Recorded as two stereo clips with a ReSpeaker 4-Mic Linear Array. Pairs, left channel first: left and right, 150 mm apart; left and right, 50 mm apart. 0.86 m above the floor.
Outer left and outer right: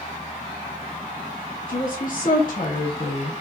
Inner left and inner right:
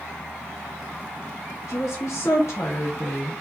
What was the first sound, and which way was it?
A woman speaking, 75° left (ahead or behind).